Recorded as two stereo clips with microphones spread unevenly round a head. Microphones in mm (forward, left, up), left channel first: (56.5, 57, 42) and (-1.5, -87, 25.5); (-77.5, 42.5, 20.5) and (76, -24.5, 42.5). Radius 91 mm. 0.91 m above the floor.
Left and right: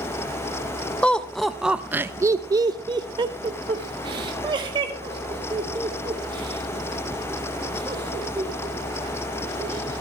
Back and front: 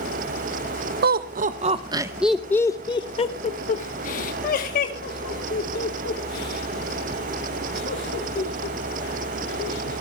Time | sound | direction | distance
1.0 | laughter | 20° right | 0.9 m